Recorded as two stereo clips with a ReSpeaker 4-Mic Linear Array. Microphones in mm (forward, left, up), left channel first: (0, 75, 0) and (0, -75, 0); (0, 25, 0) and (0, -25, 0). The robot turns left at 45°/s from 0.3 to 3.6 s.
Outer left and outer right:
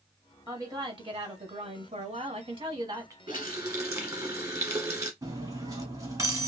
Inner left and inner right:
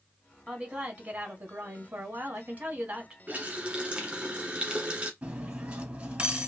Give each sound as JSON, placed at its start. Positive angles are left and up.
{"t": 0.5, "sound": "a woman speaking", "azimuth_deg": -30, "distance_m": 1.3}
{"t": 3.3, "sound": "a running tap", "side_deg": -30, "distance_m": 1.5}
{"t": 5.2, "sound": "cutlery clinking", "side_deg": -20, "distance_m": 1.1}